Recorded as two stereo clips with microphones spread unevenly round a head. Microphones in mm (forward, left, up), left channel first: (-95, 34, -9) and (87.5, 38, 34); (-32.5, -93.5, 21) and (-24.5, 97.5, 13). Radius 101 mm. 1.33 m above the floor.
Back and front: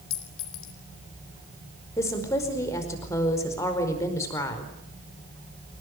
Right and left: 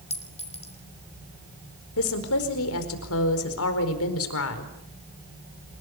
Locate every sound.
0.1 s a clink: 150° right, 4.5 m
2.0 s a woman speaking: 100° right, 4.5 m